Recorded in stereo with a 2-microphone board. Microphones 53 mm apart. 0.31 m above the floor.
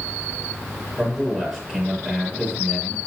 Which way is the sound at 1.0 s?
15° right (ahead or behind).